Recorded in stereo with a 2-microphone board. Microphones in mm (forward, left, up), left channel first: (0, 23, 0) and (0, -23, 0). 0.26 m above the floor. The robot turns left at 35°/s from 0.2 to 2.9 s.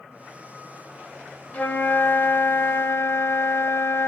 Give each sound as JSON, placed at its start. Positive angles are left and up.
{"t": 1.5, "sound": "a flute", "azimuth_deg": 145, "distance_m": 0.6}